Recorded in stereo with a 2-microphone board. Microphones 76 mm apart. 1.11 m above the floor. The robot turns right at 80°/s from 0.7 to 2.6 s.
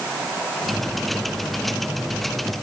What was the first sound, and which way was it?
Only background noise.